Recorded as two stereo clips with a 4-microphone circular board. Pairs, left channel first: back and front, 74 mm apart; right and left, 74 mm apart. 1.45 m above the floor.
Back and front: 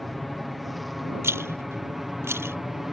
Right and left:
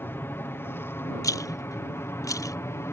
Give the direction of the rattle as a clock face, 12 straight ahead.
2 o'clock.